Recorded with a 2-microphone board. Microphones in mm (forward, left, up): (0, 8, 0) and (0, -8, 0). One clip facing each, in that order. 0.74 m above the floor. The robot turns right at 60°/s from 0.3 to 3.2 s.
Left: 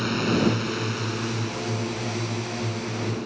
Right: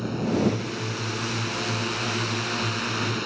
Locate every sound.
0.0 s a drone: 135° left; by 3.3 s 50° right